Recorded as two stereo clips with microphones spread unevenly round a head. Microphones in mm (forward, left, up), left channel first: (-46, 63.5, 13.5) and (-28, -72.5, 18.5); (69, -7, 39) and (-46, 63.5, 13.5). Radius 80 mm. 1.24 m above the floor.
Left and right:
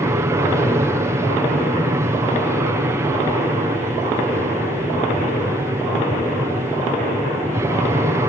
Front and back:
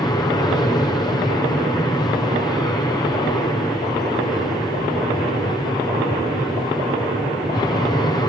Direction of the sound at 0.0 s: 60° right.